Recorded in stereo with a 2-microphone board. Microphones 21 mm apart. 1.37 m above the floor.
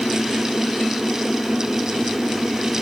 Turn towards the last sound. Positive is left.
No sound to turn to.